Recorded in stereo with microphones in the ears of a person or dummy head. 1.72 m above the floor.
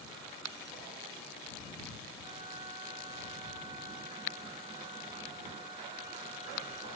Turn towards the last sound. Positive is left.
turn(degrees=-30)  # may be behind; listen again after turning